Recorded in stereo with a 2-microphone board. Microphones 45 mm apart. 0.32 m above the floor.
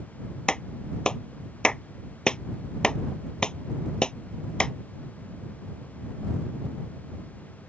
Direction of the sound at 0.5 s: 20° left (ahead or behind).